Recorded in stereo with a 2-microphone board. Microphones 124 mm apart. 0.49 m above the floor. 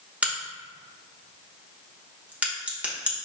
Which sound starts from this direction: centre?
A crack, at 0.2 s.